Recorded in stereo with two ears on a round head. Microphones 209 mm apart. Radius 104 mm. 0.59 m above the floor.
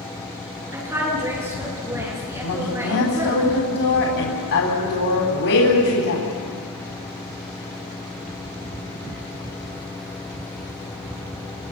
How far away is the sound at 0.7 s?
About 8 m.